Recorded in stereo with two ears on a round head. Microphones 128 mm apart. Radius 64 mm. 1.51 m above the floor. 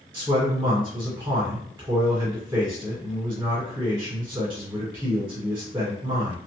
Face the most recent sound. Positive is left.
turn(degrees=-15)  # may be behind; listen again after turning